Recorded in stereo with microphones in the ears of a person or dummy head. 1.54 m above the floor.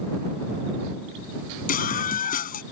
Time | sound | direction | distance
1.7 | a scream | 45° left (ahead or behind) | ?